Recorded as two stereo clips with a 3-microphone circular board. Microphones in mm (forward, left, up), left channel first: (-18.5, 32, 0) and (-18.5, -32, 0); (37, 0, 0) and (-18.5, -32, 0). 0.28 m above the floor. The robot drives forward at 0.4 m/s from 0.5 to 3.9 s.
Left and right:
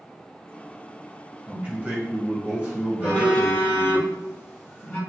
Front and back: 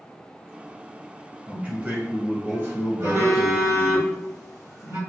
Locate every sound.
1.5 s a man speaking: 110° right, 1.2 m; by 4.0 s 155° right, 1.7 m
3.0 s a phone buzzing: 160° left, 1.8 m; by 5.0 s 165° left, 2 m